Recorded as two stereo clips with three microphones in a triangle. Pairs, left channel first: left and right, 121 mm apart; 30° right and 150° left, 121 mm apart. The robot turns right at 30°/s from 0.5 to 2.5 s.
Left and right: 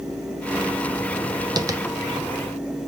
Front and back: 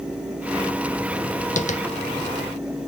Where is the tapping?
30° right, 0.5 m; by 1.8 s 25° right, 0.5 m.